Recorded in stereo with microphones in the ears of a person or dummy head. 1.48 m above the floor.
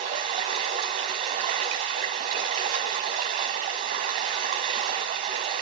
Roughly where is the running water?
Right.